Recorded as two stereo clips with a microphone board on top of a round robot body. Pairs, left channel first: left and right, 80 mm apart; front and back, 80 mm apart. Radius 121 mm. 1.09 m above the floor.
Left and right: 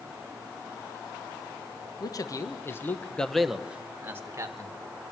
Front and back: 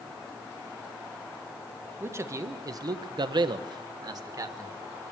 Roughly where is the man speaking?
Behind left.